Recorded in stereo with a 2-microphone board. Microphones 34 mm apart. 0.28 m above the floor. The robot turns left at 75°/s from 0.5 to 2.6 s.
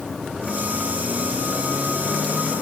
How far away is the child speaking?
No child speaking in this recording.